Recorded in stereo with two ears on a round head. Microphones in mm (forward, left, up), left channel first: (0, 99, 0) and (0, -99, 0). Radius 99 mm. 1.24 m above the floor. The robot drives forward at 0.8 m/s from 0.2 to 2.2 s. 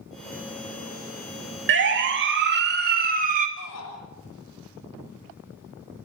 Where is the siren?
55° right (ahead or behind), 2.5 m; by 3.5 s 35° right (ahead or behind), 2 m.